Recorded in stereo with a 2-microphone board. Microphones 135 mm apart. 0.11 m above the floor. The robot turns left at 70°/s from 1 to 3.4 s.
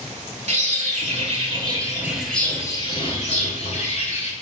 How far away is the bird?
About 0.6 m.